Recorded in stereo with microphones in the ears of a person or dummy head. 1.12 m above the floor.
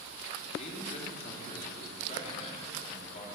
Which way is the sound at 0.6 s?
40° left (ahead or behind).